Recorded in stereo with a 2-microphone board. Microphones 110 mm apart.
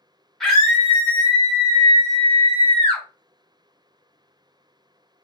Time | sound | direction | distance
0.4 | a scream | 5° left (ahead or behind) | 1.3 m